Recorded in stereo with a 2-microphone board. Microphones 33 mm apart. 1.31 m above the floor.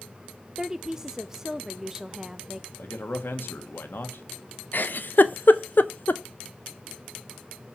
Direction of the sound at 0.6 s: 15° right (ahead or behind).